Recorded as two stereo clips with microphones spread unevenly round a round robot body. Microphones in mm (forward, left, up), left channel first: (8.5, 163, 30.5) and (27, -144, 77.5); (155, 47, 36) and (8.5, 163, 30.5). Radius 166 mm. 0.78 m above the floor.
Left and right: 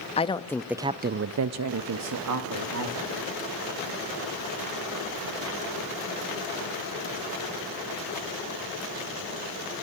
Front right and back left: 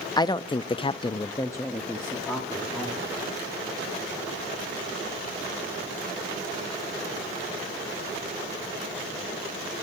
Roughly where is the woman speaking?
Ahead left.